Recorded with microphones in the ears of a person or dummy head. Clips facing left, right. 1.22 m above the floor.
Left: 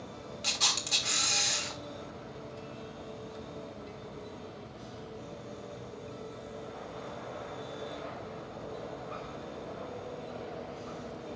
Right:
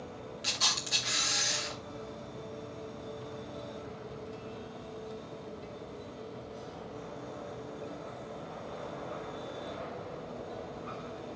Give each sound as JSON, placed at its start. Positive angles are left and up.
{"t": 0.4, "sound": "a camera shutter", "side_deg": -10, "distance_m": 2.5}